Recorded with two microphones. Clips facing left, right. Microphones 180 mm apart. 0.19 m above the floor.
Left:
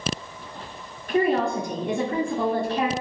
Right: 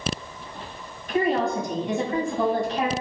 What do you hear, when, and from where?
1.1 s a woman speaking: 60° left (ahead or behind), 1.9 m